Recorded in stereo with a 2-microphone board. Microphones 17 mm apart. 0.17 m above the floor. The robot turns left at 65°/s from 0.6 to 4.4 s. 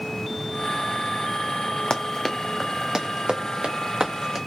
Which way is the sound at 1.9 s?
65° left (ahead or behind).